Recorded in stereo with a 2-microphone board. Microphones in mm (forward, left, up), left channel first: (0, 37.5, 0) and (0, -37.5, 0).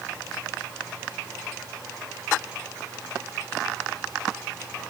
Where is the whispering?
I don't hear whispering.